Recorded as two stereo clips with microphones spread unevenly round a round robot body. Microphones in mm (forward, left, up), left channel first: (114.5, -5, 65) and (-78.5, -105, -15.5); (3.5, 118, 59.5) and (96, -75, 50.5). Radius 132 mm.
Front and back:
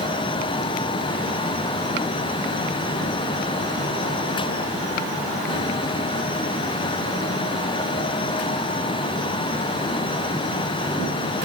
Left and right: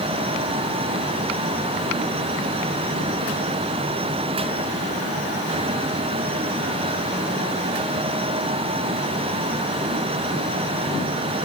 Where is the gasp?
I don't hear a gasp.